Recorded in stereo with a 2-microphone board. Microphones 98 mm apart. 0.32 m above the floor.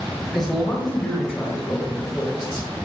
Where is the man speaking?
Centre (ahead or behind), 2.5 m; by 2.7 s 35° left (ahead or behind), 1.7 m.